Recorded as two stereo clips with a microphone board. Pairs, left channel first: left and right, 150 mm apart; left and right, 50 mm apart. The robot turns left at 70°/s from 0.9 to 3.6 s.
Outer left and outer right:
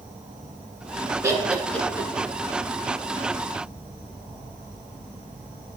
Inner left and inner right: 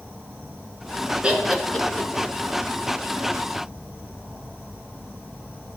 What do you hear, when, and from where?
0.0 s an insect: 105° right, 3.5 m; by 5.8 s 65° left, 3.5 m
1.2 s laughter: 25° right (ahead or behind), 1.8 m; by 2.1 s 30° left (ahead or behind), 1.8 m